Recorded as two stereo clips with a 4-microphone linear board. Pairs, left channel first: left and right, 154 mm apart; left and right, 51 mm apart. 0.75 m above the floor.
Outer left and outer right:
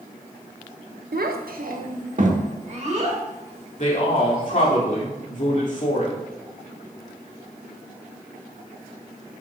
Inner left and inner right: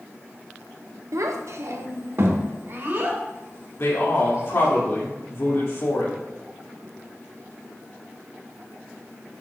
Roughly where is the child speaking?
Right.